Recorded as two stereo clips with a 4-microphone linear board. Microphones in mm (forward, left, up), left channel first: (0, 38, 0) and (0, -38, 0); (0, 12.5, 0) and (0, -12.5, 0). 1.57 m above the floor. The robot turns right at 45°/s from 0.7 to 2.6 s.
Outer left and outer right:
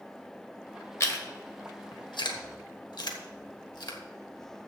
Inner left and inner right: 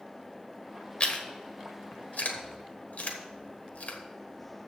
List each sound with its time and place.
1.0 s chewing: 35° left (ahead or behind), 1.3 m; by 4.0 s 70° left (ahead or behind), 1.3 m